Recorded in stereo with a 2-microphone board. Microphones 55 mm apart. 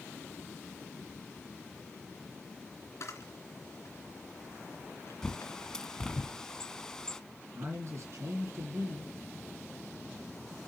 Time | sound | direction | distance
3.0 | a camera shutter | 60° left (ahead or behind) | 2.5 m
5.2 | a bird | 15° left (ahead or behind) | 1.0 m
7.5 | a man speaking | 55° right (ahead or behind) | 2.5 m